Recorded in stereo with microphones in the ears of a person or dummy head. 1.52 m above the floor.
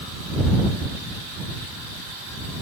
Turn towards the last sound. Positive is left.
No sound to turn to.